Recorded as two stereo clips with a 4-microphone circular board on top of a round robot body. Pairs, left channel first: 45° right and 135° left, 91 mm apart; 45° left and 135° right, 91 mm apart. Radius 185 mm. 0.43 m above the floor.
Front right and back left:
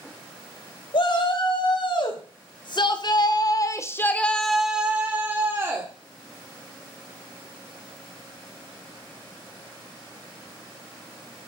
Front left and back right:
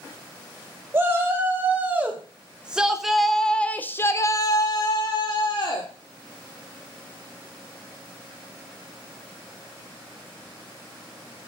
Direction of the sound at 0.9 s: 70° right.